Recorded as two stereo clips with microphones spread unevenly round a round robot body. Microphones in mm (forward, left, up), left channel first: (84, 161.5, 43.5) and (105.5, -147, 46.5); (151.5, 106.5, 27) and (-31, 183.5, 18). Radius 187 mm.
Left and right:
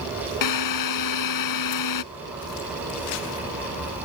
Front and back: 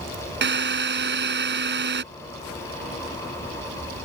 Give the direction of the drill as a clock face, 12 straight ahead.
8 o'clock.